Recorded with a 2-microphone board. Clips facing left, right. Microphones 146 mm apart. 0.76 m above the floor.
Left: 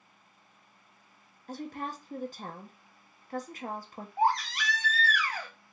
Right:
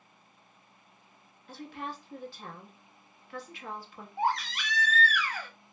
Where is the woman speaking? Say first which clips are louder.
Left 3 dB; 45° left (ahead or behind), 0.6 m.